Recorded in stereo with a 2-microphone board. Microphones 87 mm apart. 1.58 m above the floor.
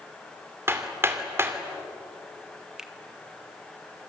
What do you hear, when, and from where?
0.7 s hammering: 30° right (ahead or behind), 2.5 m
2.8 s a finger snap: 10° right (ahead or behind), 1.4 m